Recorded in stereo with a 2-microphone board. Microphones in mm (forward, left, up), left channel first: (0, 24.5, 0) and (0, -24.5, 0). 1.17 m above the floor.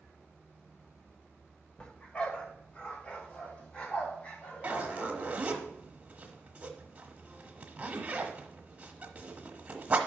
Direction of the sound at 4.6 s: 25° right (ahead or behind).